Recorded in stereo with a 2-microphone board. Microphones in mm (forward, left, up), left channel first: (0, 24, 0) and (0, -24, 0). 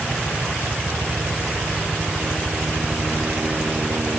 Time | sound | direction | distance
0.0 | a helicopter | 30° right (ahead or behind) | ?